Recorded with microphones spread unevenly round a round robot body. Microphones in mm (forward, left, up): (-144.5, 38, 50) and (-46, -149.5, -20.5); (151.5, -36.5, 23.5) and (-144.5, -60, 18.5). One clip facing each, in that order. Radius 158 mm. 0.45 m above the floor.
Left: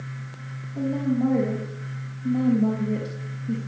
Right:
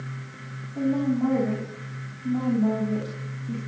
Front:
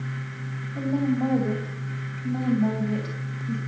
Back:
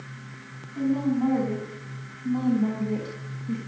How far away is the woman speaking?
About 3.5 m.